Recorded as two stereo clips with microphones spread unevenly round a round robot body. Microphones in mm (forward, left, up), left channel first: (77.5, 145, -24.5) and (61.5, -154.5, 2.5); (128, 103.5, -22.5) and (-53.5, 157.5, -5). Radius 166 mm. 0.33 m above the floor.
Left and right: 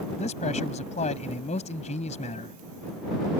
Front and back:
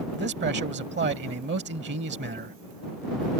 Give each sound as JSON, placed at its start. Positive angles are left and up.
{"t": 0.2, "sound": "a man speaking", "azimuth_deg": 150}